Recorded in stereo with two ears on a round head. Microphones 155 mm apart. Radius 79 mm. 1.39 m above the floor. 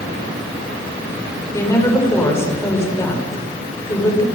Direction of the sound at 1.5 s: 15° left (ahead or behind).